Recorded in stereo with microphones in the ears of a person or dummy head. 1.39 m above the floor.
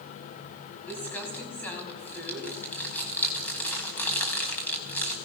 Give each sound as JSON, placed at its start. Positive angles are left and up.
{"t": 0.9, "sound": "crumpling", "side_deg": 15, "distance_m": 4.5}